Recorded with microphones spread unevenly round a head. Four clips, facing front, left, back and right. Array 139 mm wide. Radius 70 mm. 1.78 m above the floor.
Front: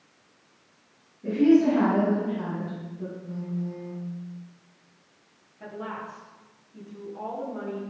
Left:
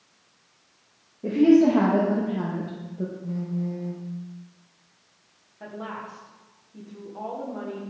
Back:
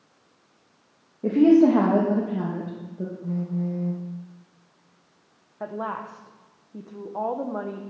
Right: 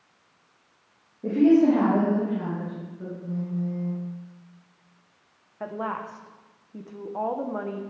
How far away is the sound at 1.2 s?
About 2.5 m.